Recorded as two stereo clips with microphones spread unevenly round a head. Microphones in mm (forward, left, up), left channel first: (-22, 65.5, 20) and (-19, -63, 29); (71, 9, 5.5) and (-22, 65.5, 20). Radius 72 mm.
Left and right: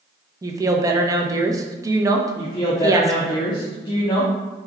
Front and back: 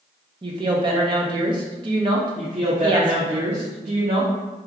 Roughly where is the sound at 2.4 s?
Behind left.